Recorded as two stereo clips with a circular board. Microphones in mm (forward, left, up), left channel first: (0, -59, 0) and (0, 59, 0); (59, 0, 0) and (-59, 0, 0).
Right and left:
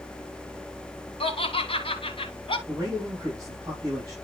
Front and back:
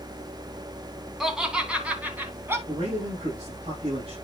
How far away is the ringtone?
I don't hear a ringtone.